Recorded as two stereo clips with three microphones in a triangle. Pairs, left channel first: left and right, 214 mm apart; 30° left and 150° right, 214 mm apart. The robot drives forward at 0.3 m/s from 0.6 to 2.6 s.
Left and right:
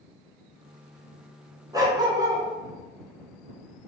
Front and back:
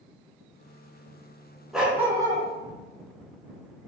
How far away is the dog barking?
About 0.5 m.